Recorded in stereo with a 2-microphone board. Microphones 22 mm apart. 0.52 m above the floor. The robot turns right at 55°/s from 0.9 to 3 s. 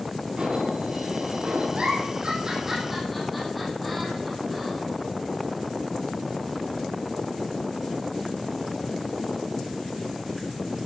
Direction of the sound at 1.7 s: 70° right (ahead or behind).